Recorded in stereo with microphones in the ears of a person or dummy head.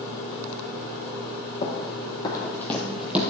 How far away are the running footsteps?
About 3.5 m.